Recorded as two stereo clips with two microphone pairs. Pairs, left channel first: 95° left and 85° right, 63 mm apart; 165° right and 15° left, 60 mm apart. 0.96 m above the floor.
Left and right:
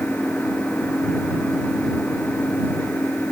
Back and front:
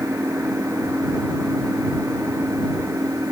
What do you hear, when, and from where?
0.0 s an engine running: 30° left